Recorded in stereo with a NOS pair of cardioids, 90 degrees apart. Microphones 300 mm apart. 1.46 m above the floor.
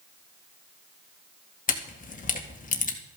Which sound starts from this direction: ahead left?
A camera shutter, at 1.7 s.